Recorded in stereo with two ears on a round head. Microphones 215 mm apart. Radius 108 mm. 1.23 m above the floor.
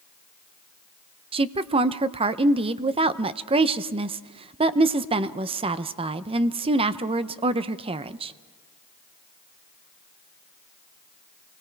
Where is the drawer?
I don't hear a drawer.